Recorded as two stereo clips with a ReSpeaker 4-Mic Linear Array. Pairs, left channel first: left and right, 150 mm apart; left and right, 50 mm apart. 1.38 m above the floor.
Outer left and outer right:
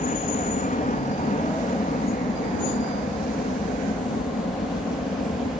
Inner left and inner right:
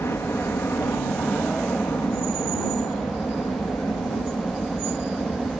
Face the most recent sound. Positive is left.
turn(degrees=60)  # may be behind; listen again after turning